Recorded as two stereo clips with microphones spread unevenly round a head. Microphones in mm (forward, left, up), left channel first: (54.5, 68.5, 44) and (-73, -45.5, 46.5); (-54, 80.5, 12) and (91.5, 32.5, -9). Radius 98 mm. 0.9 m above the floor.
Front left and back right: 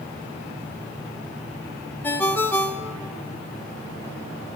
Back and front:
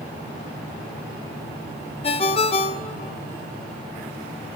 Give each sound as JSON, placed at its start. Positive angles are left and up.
{"t": 2.0, "sound": "a ringtone", "azimuth_deg": 120, "distance_m": 0.6}